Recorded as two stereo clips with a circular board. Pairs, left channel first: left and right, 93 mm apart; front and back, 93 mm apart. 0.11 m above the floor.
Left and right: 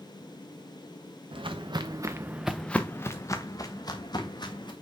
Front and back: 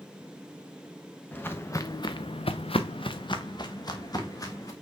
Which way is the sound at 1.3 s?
70° right.